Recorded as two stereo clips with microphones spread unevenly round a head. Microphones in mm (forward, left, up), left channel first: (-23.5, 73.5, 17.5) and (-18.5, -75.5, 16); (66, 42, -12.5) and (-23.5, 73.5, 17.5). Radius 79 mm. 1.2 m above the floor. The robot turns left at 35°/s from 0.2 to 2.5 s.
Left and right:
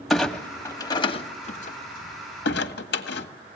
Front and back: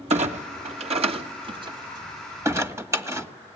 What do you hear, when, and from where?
0.1 s a clunk: straight behind, 1.8 m; by 3.3 s 100° left, 1.8 m